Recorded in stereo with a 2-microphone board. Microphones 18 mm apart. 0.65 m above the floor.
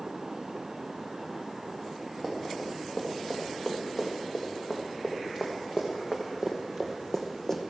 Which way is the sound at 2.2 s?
20° left (ahead or behind).